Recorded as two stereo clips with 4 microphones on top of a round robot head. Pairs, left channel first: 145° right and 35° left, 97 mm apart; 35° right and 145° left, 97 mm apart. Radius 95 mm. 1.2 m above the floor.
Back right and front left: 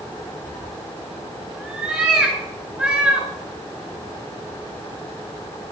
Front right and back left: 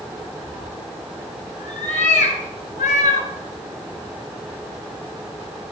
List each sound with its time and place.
0.5 s a cat meowing: 45° right, 2 m